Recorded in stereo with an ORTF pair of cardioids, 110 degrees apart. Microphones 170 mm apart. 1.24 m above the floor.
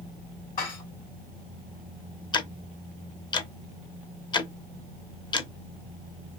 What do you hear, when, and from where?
0.6 s dishes clattering: 60° left, 2.0 m
2.3 s ticking: 25° left, 0.7 m